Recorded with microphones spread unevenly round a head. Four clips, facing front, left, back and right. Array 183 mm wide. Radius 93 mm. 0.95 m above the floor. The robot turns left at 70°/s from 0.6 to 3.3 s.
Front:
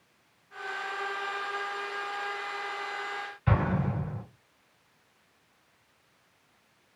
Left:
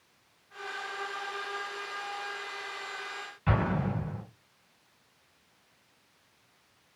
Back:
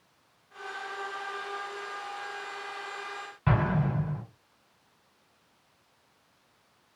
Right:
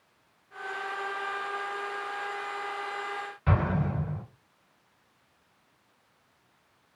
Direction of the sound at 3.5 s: 175° right.